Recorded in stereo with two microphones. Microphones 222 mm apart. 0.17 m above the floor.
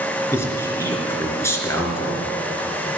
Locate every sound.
0.3 s a man speaking: 10° left (ahead or behind), 3 m